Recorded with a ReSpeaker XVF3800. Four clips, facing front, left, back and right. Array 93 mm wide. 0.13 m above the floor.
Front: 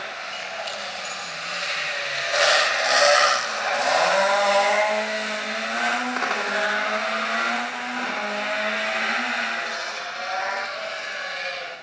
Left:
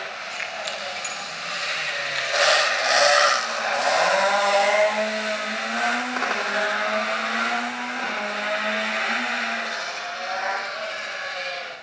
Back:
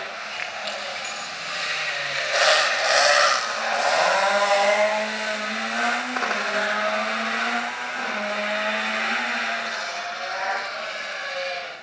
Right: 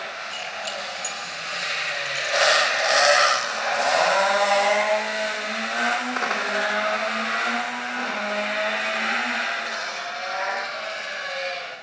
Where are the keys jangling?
155° left, 7 m; by 2.4 s 145° left, 6 m.